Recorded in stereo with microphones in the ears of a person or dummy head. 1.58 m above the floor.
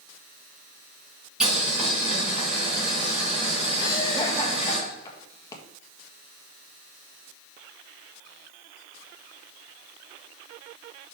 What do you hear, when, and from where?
1.4 s boiling: 5° right (ahead or behind), 3.5 m
3.8 s laughter: 20° left (ahead or behind), 1.8 m